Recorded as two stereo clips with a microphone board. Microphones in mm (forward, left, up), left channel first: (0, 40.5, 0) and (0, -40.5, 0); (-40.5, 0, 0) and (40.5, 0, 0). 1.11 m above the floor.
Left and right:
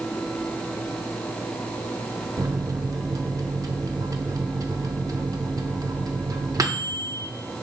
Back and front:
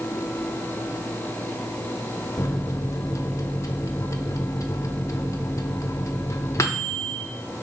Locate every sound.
2.4 s a microwave: 130° right, 0.8 m